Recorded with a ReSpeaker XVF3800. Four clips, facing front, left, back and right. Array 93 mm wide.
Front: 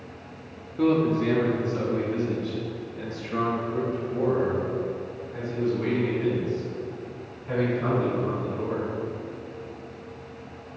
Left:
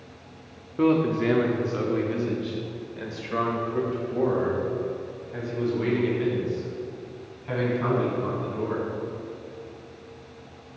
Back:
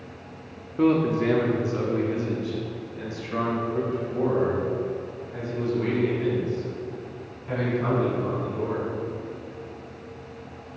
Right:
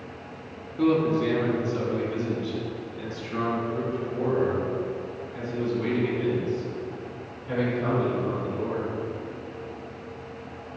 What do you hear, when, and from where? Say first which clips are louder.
0.8 s a man speaking: even, back 1 dB; 130° left, 1.1 m; by 8.8 s 95° left, 6.5 m